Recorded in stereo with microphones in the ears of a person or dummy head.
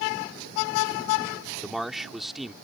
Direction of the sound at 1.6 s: 5° right (ahead or behind).